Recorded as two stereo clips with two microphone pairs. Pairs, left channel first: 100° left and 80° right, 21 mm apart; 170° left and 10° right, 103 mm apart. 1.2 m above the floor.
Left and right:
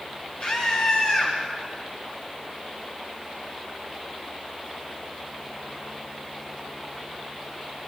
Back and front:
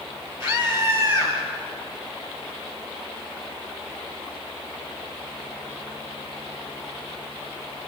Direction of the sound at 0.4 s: 55° left.